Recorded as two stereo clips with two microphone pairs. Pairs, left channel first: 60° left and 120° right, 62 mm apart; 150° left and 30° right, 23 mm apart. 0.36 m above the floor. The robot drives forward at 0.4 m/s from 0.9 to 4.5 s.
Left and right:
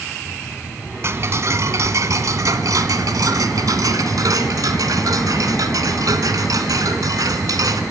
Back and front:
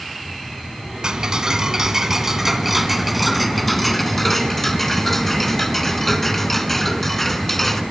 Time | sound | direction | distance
1.0 | ticking | 80° right | 1.6 m